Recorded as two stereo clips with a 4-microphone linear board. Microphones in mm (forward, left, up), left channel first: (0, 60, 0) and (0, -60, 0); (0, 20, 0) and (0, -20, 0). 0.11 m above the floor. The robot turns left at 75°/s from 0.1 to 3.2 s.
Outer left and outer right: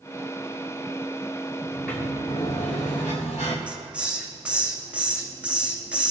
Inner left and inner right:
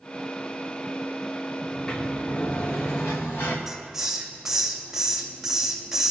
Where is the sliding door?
170° right, 3.5 m; by 3.6 s 70° left, 3.5 m.